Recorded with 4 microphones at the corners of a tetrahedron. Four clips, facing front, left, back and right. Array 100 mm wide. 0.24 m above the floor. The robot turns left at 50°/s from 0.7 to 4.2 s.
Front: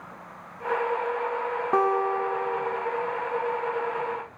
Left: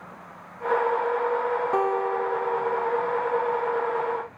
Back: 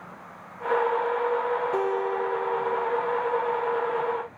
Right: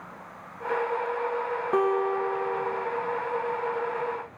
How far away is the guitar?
About 1.5 m.